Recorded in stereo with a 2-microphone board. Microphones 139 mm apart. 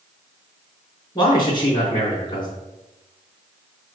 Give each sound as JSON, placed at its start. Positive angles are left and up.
{"t": 1.1, "sound": "a man speaking", "side_deg": 30, "distance_m": 3.5}